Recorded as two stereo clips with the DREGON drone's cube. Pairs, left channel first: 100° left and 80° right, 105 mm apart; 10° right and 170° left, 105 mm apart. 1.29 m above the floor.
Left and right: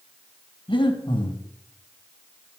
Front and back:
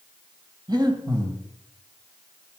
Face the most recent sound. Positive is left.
turn(degrees=130)